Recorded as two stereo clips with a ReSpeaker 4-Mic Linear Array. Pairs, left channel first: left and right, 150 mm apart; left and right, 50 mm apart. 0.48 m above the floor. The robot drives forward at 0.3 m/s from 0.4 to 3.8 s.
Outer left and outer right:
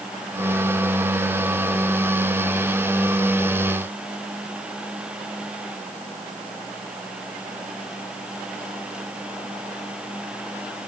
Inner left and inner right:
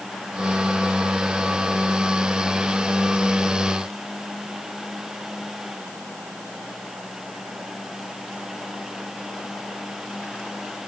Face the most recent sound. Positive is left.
No sound to turn to.